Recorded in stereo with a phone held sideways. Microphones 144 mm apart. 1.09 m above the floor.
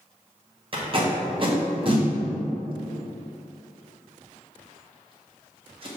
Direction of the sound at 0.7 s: 40° right (ahead or behind).